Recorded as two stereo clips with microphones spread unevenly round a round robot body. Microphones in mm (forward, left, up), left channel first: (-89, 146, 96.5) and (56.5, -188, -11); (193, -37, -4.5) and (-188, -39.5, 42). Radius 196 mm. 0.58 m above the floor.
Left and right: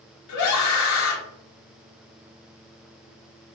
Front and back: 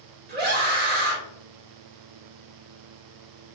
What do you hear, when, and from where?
0.3 s a scream: 135° left, 0.8 m